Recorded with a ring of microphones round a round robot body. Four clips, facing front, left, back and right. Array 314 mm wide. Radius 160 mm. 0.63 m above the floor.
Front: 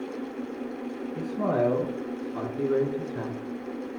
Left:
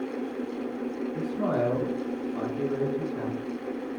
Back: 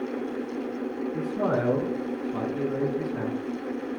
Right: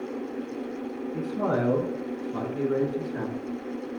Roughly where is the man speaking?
Behind right.